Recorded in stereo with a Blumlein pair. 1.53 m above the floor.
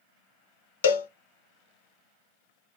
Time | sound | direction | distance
0.8 | a cowbell | 60° left | 0.5 m